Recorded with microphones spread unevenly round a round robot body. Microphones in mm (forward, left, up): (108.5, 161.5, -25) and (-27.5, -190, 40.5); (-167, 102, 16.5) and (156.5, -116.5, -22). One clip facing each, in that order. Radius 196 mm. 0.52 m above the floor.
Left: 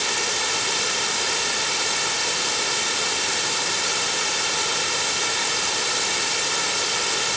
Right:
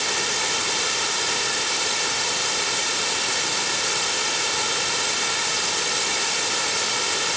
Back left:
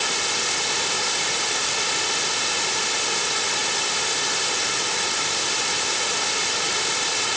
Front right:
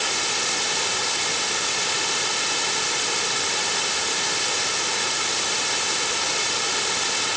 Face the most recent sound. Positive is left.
No sound to turn to.